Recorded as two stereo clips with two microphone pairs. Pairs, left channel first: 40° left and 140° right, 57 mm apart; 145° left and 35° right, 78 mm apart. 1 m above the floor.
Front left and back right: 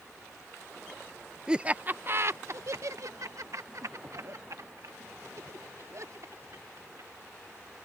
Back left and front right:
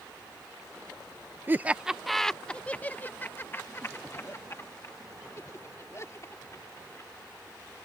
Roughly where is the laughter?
Right.